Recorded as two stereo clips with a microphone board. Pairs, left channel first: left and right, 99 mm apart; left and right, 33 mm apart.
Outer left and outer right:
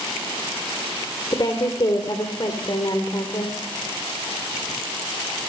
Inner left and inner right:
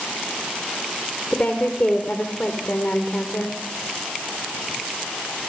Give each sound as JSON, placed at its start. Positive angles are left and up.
{"t": 1.3, "sound": "a woman speaking", "side_deg": 50, "distance_m": 2.5}